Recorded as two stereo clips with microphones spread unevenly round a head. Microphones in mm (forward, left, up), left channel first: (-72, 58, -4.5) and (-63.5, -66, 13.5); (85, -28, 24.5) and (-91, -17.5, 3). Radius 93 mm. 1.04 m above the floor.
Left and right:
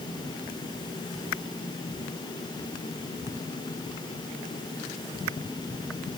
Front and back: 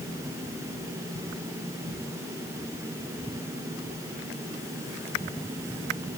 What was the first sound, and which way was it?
Only background noise.